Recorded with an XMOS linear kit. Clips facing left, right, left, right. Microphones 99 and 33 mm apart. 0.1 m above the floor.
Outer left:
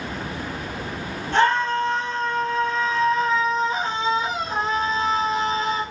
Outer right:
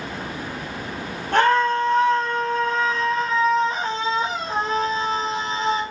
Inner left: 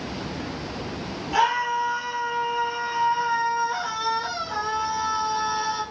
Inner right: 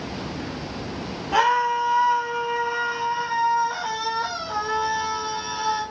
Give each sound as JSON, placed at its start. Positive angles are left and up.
{"t": 1.3, "sound": "a scream", "side_deg": -55, "distance_m": 4.5}